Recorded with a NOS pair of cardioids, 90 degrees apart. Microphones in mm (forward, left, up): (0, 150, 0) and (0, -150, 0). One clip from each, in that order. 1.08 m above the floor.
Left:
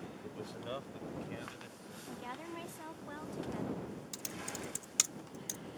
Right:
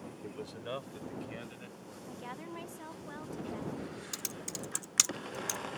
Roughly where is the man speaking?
Ahead.